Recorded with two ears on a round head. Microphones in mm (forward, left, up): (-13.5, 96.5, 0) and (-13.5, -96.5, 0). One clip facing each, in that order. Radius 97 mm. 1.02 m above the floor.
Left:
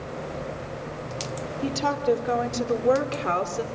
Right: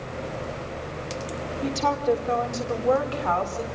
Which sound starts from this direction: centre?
A woman speaking, at 1.6 s.